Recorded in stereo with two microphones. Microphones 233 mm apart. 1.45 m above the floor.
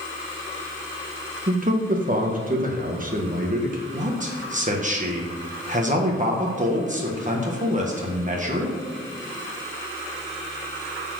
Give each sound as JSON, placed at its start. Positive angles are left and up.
{"t": 1.5, "sound": "a man speaking", "side_deg": -35, "distance_m": 1.4}
{"t": 3.9, "sound": "a man speaking", "side_deg": -35, "distance_m": 1.4}